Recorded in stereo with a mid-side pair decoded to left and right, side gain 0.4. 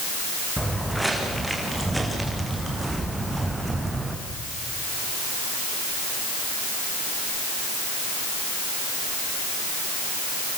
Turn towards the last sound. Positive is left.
turn(degrees=-15)